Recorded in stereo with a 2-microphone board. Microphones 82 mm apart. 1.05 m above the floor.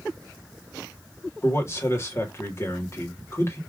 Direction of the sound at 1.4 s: 35° left (ahead or behind).